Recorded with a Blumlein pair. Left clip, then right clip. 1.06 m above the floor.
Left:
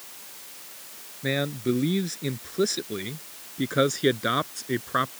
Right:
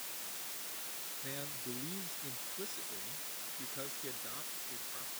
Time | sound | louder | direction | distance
1.2 | a man speaking | left 20 dB | 40° left | ?